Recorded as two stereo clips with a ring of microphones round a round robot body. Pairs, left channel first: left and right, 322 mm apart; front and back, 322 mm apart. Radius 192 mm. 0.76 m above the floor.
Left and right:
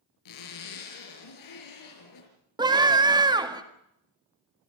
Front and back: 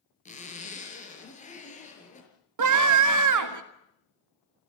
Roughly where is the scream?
Behind.